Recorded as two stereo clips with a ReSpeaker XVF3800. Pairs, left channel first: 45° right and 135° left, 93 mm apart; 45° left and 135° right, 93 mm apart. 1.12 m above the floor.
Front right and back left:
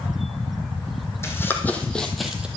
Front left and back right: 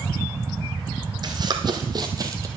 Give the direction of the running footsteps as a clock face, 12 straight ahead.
3 o'clock.